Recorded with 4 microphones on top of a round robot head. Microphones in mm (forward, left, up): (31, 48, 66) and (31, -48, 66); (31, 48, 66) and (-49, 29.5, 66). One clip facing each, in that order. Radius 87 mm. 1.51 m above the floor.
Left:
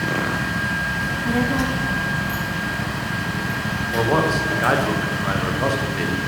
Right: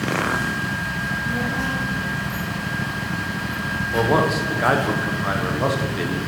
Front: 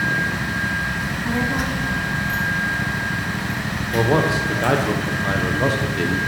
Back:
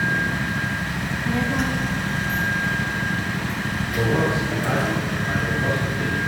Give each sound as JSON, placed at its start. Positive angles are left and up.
{"t": 1.0, "sound": "a child speaking", "azimuth_deg": 80, "distance_m": 0.9}
{"t": 3.9, "sound": "a man speaking", "azimuth_deg": -5, "distance_m": 1.1}